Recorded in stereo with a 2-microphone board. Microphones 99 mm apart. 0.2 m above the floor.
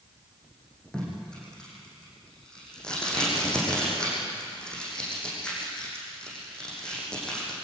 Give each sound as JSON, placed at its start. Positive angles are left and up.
{"t": 0.9, "sound": "tape being pulled", "side_deg": 10, "distance_m": 9.0}